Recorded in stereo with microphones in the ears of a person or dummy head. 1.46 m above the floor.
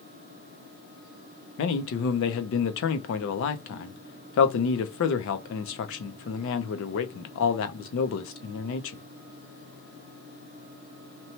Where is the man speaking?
70° left (ahead or behind), 0.6 m.